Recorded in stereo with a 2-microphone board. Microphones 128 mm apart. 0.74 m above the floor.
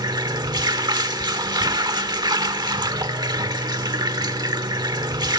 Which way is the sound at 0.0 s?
35° right (ahead or behind).